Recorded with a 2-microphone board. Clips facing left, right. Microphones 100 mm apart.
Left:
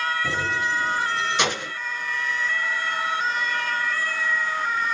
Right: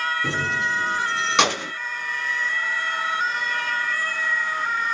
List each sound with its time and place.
0.2 s keys jangling: 70° right (ahead or behind), 6.5 m; by 1.7 s 90° right, 5 m